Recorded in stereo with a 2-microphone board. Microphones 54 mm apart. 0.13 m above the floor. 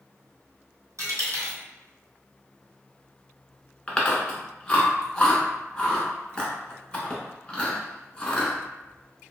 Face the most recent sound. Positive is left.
turn(degrees=15)  # may be behind; listen again after turning